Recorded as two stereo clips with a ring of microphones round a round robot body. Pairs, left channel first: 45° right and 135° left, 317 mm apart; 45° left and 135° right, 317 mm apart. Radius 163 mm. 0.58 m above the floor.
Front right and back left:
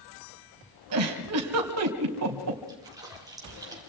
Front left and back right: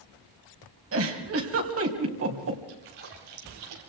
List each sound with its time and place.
0.9 s a giggle: 175° left, 3.5 m
2.7 s a splash: 145° right, 5.5 m